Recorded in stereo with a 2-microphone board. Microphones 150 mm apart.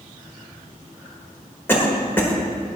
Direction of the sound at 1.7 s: 15° left (ahead or behind).